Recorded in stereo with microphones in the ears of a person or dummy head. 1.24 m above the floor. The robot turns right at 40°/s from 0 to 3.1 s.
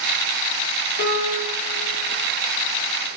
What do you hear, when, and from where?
1.0 s a piano: 70° left (ahead or behind), 0.8 m; by 1.6 s 45° left (ahead or behind), 0.8 m